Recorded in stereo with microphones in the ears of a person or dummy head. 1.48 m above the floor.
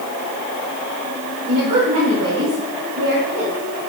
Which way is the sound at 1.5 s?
55° right (ahead or behind).